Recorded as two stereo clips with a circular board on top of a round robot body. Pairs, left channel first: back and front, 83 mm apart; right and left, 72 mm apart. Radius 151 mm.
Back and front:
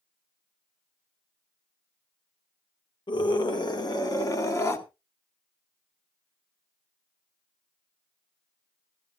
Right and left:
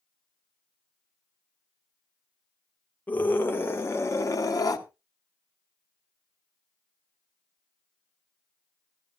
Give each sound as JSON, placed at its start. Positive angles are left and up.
{"t": 3.1, "sound": "a scream", "azimuth_deg": -155, "distance_m": 2.5}